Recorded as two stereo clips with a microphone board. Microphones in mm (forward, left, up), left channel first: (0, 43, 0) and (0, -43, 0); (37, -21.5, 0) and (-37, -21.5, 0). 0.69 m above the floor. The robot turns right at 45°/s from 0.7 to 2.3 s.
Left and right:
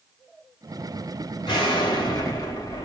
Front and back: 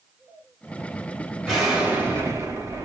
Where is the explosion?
90° left, 2.5 m; by 2.9 s 125° left, 2.5 m.